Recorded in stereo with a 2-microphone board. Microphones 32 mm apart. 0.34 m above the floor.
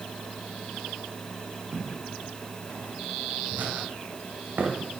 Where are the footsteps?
75° right (ahead or behind), 5.5 m; by 4.8 s 50° right (ahead or behind), 3.5 m.